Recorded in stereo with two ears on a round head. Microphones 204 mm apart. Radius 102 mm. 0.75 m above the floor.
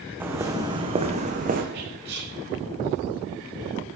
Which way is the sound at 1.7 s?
50° right (ahead or behind).